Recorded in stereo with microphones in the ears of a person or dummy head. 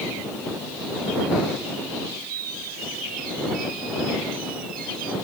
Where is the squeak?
45° right (ahead or behind).